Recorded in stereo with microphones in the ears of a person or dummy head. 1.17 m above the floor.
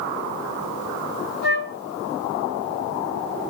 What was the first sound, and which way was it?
A flute, 30° right (ahead or behind).